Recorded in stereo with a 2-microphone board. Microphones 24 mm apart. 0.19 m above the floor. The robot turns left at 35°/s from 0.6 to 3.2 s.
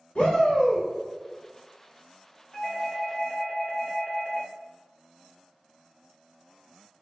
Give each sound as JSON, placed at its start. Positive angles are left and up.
{"t": 0.1, "sound": "a shout", "side_deg": 55, "distance_m": 1.9}
{"t": 2.5, "sound": "a doorbell", "side_deg": 25, "distance_m": 1.5}